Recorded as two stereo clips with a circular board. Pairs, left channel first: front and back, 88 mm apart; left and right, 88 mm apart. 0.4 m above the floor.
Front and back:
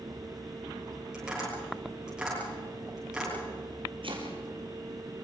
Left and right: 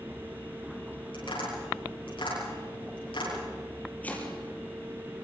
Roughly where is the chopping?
Behind.